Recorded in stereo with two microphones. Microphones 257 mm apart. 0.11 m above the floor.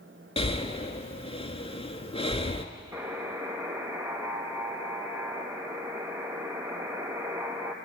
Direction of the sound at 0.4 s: 25° left (ahead or behind).